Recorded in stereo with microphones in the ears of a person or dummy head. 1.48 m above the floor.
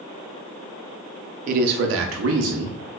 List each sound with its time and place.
1.5 s a man speaking: 45° right (ahead or behind), 0.5 m; by 3.0 s 55° right (ahead or behind), 0.9 m